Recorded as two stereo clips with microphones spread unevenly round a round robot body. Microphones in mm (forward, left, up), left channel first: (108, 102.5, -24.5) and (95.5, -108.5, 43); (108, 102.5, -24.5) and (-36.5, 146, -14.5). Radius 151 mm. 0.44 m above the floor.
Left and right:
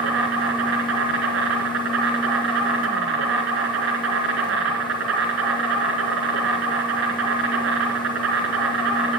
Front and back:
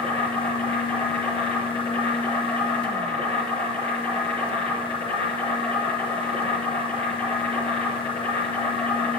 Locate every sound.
0.0 s an insect: 90° right, 2.5 m